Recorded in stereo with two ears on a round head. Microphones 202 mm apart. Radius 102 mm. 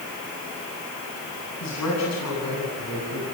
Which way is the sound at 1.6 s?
85° left.